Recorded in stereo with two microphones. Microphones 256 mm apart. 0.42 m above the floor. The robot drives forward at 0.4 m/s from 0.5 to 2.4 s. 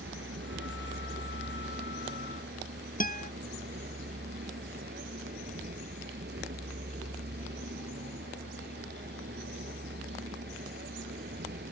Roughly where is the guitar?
Left.